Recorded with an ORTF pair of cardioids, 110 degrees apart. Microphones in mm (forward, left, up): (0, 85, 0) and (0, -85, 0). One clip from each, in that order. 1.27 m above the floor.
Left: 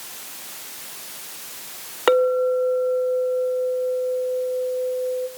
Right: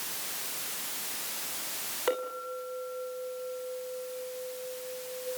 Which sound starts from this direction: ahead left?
A clink, at 2.1 s.